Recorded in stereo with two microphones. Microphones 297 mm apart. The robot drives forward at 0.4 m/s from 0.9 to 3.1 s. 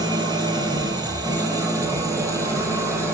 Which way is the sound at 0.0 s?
15° right (ahead or behind).